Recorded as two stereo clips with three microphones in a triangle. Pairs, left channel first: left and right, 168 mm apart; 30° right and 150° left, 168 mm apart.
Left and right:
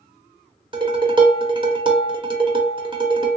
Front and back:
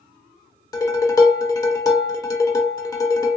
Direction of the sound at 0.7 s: 75° right.